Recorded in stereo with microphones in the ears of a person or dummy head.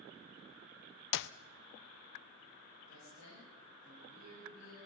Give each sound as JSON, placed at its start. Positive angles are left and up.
{"t": 1.1, "sound": "a clap", "side_deg": 65, "distance_m": 0.6}
{"t": 2.9, "sound": "a woman speaking", "side_deg": 80, "distance_m": 10.0}